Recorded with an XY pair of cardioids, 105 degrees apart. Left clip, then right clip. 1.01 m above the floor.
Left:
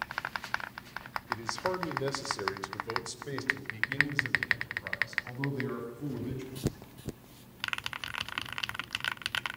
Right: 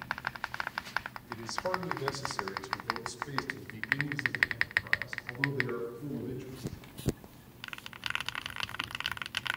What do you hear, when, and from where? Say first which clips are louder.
1.3 s a man speaking: left 1 dB; 15° left, 3.5 m; by 6.7 s 80° left, 9.5 m